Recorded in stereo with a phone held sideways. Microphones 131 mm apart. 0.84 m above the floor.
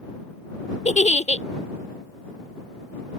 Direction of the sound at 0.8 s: 65° left (ahead or behind).